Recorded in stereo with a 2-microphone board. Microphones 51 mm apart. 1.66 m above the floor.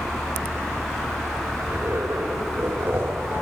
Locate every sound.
1.6 s a zipper: 45° right (ahead or behind), 4.5 m